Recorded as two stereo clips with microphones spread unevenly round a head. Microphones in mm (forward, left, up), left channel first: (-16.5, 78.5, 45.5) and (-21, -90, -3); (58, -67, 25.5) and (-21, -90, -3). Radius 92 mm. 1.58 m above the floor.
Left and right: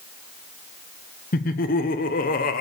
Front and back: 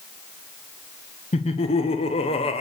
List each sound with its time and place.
1.3 s laughter: 40° left, 0.8 m